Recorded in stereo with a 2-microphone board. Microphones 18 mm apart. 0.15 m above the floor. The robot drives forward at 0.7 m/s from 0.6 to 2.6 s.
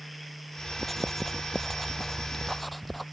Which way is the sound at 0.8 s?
10° left (ahead or behind).